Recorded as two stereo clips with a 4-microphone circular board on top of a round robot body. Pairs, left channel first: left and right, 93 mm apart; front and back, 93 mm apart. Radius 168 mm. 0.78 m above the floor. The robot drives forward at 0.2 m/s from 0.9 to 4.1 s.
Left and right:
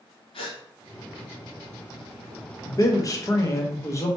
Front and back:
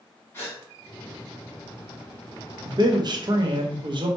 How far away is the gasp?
About 1.4 m.